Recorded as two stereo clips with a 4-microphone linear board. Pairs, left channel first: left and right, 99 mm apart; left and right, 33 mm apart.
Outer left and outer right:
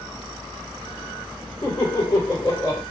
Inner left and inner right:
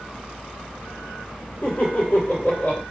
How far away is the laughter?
About 2 m.